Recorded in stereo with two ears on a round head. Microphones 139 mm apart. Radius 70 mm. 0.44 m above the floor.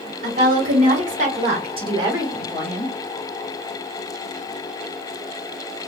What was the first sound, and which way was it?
A woman speaking, 60° right (ahead or behind).